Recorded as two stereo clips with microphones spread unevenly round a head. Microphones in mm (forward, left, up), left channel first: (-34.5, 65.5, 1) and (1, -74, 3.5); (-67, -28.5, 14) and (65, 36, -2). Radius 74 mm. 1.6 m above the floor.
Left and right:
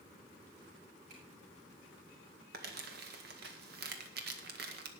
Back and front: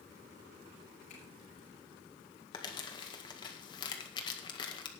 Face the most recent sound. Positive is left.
turn(degrees=-90)